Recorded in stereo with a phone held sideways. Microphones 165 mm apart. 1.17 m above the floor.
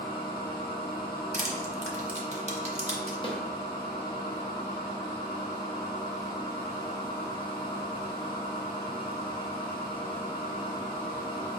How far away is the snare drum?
About 0.7 m.